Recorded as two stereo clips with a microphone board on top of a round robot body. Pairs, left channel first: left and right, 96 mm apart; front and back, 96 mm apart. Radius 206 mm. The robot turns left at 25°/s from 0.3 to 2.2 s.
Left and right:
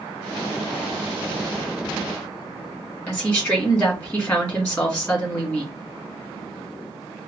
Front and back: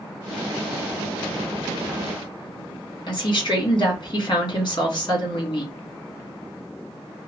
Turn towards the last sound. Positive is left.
turn(degrees=25)